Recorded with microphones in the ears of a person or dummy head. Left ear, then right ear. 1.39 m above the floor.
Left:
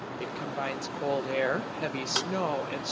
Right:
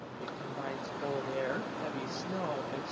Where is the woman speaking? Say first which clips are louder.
Left 5 dB; 75° left (ahead or behind), 1.4 m.